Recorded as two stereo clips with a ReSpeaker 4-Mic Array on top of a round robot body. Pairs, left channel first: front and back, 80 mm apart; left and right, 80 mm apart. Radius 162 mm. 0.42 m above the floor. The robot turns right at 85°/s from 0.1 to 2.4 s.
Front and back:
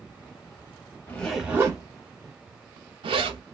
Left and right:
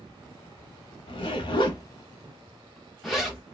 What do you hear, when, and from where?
1.1 s a zipper: 65° left, 0.6 m; by 3.4 s straight behind, 0.6 m